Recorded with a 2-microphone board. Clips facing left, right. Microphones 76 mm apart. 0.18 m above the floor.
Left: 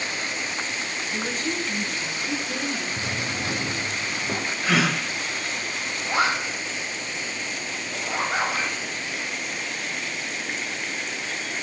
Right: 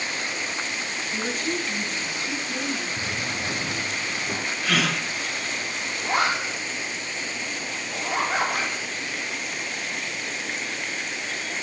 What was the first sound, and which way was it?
A woman speaking, 5° right (ahead or behind).